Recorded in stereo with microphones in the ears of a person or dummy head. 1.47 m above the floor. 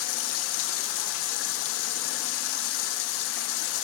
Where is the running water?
85° left, 1.1 m.